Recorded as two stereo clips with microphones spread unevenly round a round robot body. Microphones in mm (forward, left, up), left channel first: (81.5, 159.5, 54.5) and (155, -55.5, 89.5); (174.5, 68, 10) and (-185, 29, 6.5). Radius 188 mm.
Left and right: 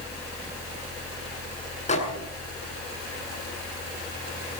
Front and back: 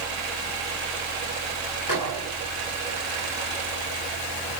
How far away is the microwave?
About 7.5 m.